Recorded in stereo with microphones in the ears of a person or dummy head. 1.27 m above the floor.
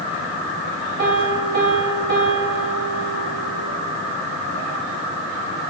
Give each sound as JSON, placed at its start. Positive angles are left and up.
{"t": 1.0, "sound": "a piano", "side_deg": -55, "distance_m": 2.0}